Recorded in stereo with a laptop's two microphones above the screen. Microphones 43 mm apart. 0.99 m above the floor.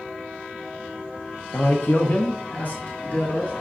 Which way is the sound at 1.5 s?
60° left (ahead or behind).